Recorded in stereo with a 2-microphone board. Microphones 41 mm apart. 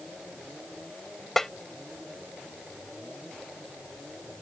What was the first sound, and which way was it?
A snare drum, 10° left (ahead or behind).